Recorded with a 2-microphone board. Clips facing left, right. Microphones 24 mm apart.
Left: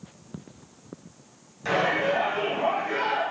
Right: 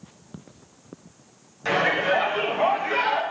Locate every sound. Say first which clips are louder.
1.6 s a shout: right 2 dB; 15° right (ahead or behind), 1.4 m; by 3.2 s 60° right (ahead or behind), 1.9 m